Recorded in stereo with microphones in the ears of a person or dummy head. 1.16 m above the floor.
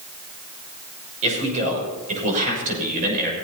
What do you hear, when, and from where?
1.2 s a man speaking: 40° right (ahead or behind), 6 m; by 3.3 s 55° right (ahead or behind), 6.5 m